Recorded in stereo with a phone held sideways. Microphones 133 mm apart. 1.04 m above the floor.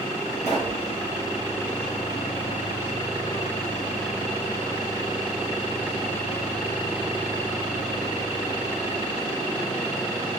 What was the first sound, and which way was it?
A pop, 60° right (ahead or behind).